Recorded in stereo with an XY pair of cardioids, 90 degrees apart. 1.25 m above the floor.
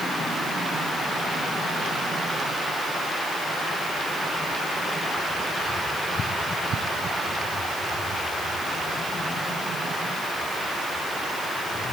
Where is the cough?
I don't hear a cough.